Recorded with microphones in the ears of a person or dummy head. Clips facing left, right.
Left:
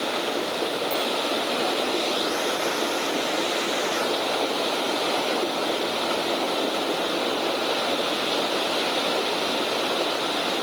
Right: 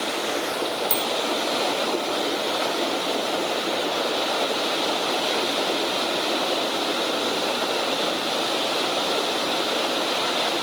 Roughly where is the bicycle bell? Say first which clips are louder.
Left 1 dB; right.